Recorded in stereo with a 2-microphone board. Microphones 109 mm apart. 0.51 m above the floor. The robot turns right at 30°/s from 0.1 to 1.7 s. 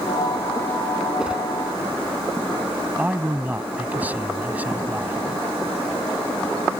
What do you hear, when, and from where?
1.2 s a whoosh: 5° right (ahead or behind); by 1.4 s 15° right (ahead or behind)
3.0 s a man speaking: 15° right (ahead or behind)